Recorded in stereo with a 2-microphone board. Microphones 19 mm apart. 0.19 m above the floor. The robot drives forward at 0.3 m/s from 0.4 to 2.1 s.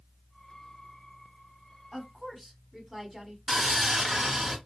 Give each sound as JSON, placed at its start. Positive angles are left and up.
{"t": 1.9, "sound": "a woman speaking", "side_deg": -10, "distance_m": 1.4}
{"t": 3.5, "sound": "sawing", "side_deg": -25, "distance_m": 1.4}